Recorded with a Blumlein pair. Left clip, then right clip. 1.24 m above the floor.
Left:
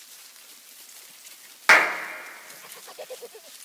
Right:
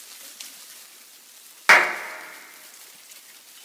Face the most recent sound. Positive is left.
turn(degrees=-5)